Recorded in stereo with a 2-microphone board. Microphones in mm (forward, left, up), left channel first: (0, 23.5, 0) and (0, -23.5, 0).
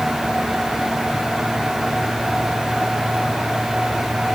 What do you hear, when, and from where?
Only background noise.